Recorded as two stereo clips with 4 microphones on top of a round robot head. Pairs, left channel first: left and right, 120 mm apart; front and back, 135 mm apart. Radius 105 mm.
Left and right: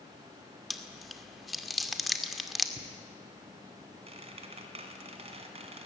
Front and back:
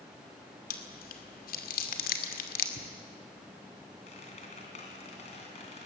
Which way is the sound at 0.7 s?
Straight ahead.